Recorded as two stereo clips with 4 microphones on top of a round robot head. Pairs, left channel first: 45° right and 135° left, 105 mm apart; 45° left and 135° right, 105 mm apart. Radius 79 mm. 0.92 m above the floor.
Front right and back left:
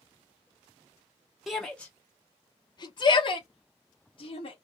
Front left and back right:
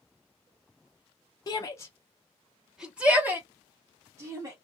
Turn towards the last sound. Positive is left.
turn(degrees=-75)